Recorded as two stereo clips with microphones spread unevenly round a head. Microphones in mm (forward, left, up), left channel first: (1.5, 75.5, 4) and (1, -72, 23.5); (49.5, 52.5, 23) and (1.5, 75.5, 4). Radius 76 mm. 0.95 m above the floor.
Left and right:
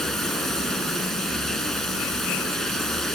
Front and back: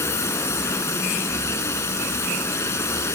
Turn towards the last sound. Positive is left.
turn(degrees=0)